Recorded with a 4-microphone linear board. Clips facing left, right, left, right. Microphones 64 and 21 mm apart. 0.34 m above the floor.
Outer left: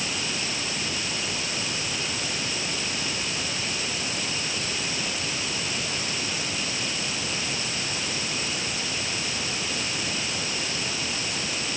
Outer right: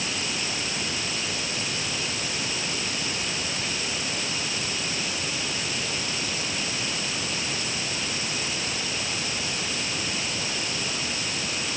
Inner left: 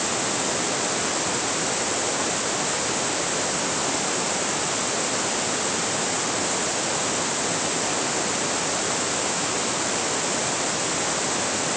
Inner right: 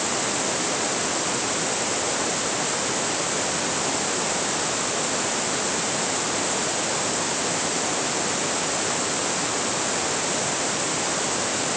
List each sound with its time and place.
Only background noise.